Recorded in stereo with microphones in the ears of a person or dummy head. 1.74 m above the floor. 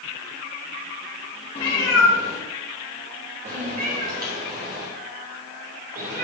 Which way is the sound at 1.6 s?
15° left (ahead or behind).